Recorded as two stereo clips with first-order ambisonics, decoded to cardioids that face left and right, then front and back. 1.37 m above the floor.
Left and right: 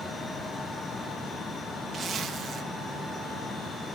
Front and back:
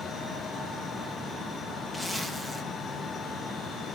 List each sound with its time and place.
1.9 s a zipper: 95° right, 0.8 m